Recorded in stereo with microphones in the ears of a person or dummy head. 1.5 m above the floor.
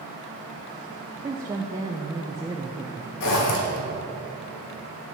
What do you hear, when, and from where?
1.2 s a woman speaking: 15° right (ahead or behind), 0.5 m
3.2 s a zipper: 65° left (ahead or behind), 1.6 m